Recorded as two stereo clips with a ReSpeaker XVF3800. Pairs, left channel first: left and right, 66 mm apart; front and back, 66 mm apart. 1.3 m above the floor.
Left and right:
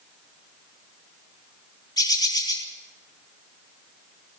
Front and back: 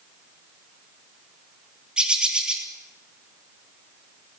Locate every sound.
2.0 s a bird: 105° left, 3 m